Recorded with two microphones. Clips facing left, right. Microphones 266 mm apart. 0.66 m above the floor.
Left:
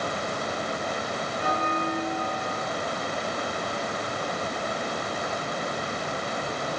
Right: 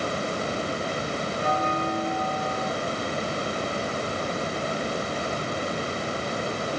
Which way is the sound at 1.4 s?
30° right (ahead or behind).